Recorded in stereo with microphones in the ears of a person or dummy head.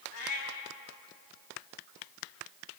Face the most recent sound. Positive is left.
turn(degrees=85)